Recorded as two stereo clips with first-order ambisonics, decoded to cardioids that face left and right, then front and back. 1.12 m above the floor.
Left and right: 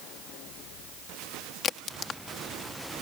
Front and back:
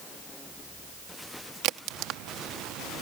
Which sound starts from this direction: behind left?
A crack, at 1.6 s.